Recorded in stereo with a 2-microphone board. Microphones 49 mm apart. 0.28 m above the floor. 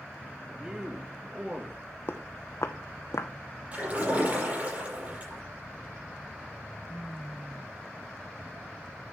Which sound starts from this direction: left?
Footsteps, at 2.1 s.